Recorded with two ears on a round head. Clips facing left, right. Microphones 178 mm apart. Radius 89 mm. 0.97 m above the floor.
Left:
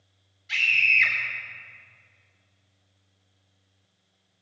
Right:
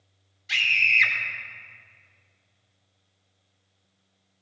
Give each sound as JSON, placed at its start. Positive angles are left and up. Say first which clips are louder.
{"t": 0.5, "sound": "a scream", "louder": "even", "side_deg": -65, "distance_m": 3.5}